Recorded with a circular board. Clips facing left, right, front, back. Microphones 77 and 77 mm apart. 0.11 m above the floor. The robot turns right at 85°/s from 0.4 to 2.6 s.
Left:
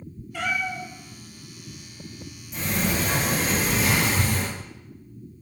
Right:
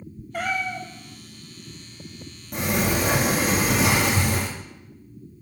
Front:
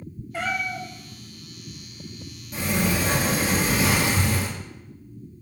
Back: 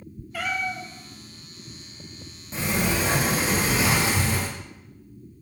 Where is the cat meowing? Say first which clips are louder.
Right 1 dB, front 1 dB; 55° right, 1.2 m; by 0.9 s 15° right, 1.2 m.